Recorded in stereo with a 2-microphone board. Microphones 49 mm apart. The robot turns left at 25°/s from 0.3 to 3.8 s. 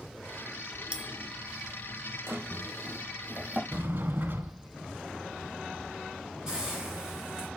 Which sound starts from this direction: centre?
A hiss, at 6.5 s.